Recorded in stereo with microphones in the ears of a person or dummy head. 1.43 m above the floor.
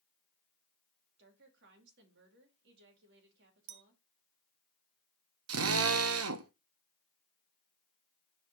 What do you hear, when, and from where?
1.2 s a woman speaking: 70° right (ahead or behind), 2.5 m
3.7 s a clink: 60° right (ahead or behind), 0.8 m
5.5 s a drill: 70° right (ahead or behind), 0.9 m